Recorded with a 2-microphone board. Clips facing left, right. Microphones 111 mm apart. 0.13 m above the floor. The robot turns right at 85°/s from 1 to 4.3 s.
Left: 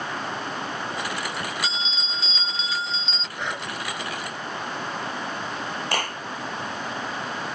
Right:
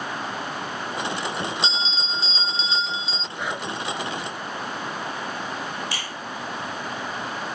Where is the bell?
135° right; by 3.3 s 5° left.